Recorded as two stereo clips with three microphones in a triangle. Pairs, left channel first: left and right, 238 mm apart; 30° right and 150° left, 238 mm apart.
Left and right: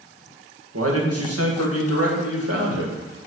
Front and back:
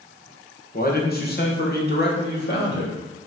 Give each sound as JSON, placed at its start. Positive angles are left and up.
{"t": 0.7, "sound": "a man speaking", "azimuth_deg": -80, "distance_m": 1.7}